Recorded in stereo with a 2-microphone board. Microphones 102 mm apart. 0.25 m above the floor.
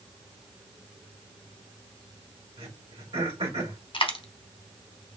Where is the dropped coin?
55° left (ahead or behind), 0.9 m.